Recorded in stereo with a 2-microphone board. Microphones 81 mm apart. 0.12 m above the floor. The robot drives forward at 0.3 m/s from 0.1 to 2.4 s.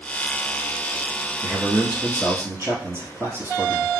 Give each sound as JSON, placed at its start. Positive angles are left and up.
{"t": 1.4, "sound": "a man speaking", "side_deg": -30, "distance_m": 1.9}